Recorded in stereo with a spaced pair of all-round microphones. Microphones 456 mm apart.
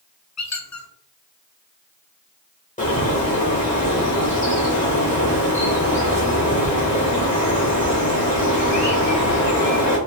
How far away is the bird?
About 1.7 m.